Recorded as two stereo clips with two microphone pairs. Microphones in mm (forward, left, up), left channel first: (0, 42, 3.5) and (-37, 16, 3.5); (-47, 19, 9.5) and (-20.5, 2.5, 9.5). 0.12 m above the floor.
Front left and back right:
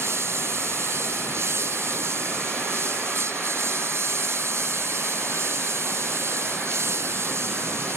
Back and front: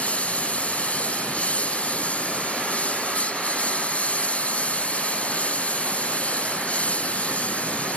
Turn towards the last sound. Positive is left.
turn(degrees=-165)